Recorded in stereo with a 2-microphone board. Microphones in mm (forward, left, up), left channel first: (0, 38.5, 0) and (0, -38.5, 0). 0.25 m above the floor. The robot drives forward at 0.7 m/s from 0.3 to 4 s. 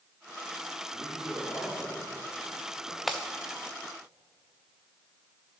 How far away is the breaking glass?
About 1.2 m.